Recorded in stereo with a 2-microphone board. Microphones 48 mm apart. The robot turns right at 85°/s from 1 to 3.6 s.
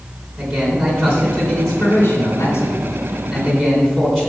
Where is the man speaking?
50° right, 3.5 m; by 4.3 s 170° left, 3.5 m.